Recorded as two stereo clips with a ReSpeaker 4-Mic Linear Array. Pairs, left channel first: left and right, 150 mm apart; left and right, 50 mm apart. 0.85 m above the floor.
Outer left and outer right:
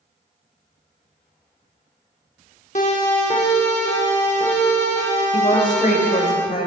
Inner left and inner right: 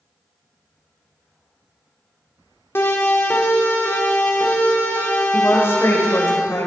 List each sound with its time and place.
2.8 s a siren: 55° left (ahead or behind), 2.5 m; by 6.3 s 50° left (ahead or behind), 7.5 m
5.3 s a woman speaking: 60° left (ahead or behind), 3.5 m